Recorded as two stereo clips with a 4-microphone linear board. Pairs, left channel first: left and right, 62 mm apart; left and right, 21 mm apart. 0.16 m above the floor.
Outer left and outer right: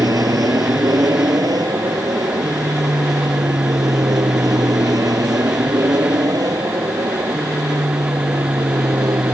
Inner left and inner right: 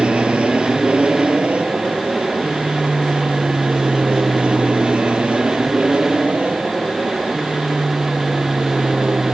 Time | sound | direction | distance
0.0 | an aircraft | 70° right (ahead or behind) | ?